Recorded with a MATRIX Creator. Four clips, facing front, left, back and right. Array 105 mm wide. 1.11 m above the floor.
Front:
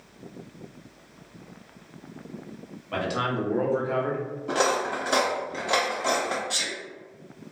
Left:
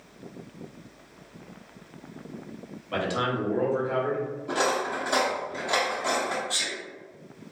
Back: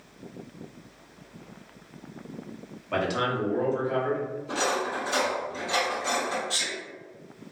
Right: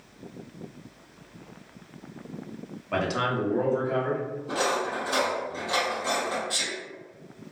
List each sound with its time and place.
2.9 s a man speaking: 115° right, 0.7 m; by 4.3 s 30° left, 1.1 m
4.5 s cutlery clinking: 15° left, 0.6 m
6.5 s a sneeze: 30° right, 1.4 m